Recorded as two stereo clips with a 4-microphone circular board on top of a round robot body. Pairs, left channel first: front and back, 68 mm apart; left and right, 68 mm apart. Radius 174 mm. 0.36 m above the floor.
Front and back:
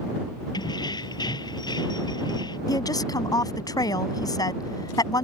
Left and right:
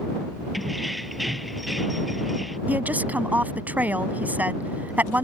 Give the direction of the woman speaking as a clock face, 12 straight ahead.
1 o'clock.